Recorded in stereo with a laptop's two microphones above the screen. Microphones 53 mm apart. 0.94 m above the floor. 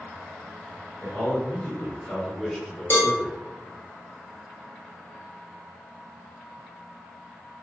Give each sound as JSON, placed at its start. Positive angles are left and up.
{"t": 1.0, "sound": "a man speaking", "side_deg": 30, "distance_m": 1.9}
{"t": 2.9, "sound": "a cowbell", "side_deg": 50, "distance_m": 1.2}